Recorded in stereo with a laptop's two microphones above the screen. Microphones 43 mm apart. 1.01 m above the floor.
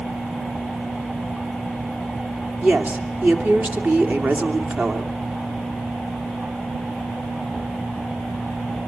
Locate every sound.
2.6 s a woman speaking: 40° right (ahead or behind), 2.5 m